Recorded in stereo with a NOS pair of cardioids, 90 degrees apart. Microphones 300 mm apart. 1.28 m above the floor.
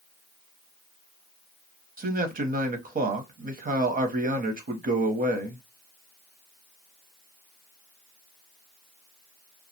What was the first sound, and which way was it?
A man speaking, 30° right.